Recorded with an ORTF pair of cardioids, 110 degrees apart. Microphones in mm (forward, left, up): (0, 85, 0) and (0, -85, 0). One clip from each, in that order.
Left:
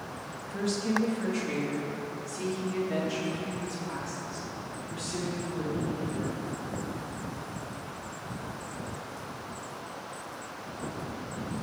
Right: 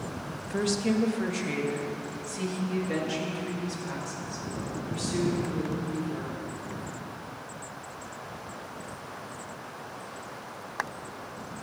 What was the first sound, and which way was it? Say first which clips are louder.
A woman speaking: right 2 dB; 60° right.